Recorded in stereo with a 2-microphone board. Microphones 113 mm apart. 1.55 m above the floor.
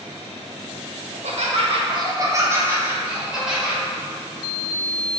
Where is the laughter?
85° right, 0.6 m; by 3.8 s 5° right (ahead or behind), 1.5 m.